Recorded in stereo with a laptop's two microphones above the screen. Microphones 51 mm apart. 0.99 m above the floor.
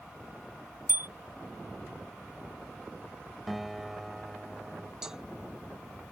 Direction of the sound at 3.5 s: Centre (ahead or behind).